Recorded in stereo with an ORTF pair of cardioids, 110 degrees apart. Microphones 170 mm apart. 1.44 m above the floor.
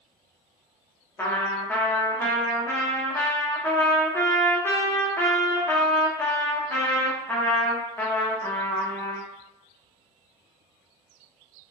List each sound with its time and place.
1.2 s a trumpet: 15° left, 0.7 m